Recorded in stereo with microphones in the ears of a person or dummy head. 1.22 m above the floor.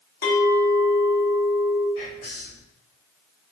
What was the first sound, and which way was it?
A clink, 60° left (ahead or behind).